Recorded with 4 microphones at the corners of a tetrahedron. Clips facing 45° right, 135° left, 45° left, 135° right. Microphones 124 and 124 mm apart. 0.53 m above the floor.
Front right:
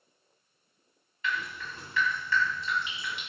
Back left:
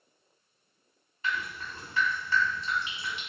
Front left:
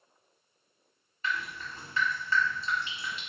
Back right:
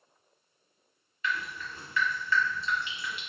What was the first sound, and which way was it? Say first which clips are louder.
Dripping: even, back right 1 dB; 90° left.